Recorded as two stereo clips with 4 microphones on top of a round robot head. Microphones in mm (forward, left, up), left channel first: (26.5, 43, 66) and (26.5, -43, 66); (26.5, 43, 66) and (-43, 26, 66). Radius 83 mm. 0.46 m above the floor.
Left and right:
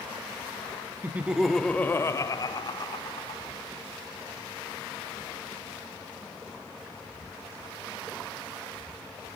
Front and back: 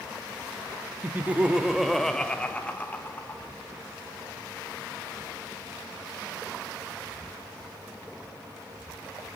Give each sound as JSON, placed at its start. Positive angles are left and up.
{"t": 1.0, "sound": "laughter", "azimuth_deg": -130, "distance_m": 0.7}